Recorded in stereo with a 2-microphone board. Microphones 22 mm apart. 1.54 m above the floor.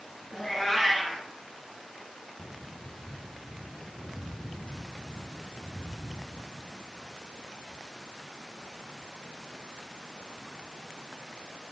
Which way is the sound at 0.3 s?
15° left (ahead or behind).